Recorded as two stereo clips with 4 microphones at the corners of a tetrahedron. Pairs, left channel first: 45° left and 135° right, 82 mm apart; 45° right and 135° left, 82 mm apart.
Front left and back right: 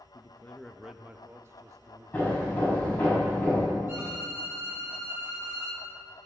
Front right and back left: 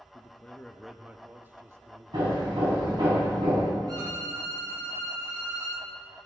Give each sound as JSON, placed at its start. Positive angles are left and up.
{"t": 0.1, "sound": "a man speaking", "azimuth_deg": 0, "distance_m": 0.7}
{"t": 2.1, "sound": "hammering", "azimuth_deg": 115, "distance_m": 5.0}
{"t": 3.9, "sound": "a violin", "azimuth_deg": 165, "distance_m": 3.5}